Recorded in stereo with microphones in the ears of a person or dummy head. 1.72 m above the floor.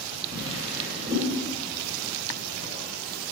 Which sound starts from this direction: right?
A drawer, at 0.3 s.